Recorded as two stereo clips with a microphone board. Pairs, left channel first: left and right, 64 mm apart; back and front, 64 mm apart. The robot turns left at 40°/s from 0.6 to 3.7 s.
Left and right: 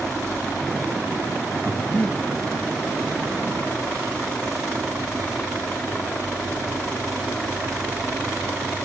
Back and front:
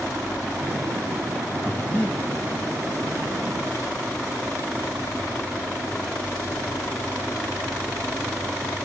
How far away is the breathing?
About 1.2 m.